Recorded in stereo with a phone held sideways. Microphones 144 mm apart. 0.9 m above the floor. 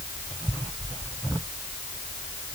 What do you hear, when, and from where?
Only background noise.